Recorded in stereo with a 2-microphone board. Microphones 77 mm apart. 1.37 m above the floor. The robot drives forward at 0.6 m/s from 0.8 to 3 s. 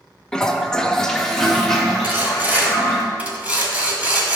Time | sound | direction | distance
0.3 | a toilet flushing | 10° left (ahead or behind) | 0.6 m
2.0 | sawing | 25° right (ahead or behind) | 1.3 m